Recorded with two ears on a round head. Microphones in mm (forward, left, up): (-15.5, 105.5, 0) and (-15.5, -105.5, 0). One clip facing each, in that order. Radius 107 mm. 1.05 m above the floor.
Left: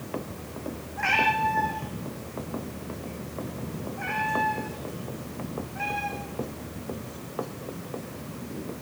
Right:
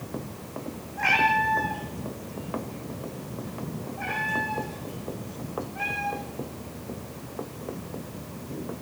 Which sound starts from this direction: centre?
A cat meowing, at 1.0 s.